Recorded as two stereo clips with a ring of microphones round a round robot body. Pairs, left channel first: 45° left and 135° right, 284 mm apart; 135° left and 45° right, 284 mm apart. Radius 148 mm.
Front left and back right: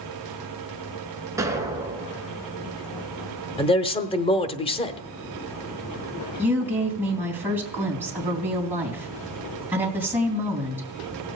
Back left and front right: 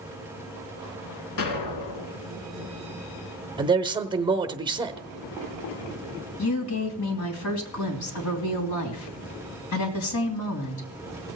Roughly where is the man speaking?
Ahead.